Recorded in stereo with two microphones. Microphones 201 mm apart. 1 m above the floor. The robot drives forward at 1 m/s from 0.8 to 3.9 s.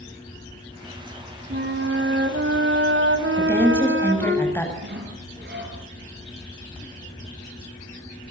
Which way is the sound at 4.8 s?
60° right (ahead or behind).